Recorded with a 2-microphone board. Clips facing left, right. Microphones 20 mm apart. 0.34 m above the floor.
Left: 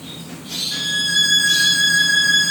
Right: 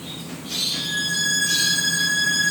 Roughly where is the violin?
Left.